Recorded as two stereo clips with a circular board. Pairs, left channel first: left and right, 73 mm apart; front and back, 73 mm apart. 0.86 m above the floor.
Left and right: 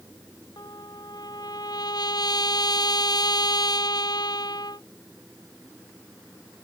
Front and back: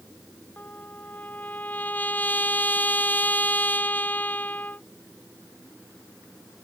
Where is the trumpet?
65° left.